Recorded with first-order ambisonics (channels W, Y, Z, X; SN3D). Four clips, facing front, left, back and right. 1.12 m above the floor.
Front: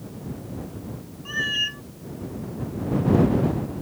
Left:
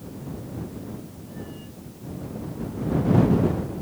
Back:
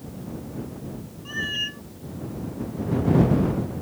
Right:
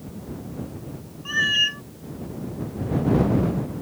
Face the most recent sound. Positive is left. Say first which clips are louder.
# right 24 dB, front 3 dB
turn(degrees=-80)